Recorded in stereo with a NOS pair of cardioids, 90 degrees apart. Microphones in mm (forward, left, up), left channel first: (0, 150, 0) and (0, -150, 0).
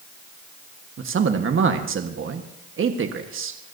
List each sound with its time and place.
1.0 s a man speaking: 45° right, 1.5 m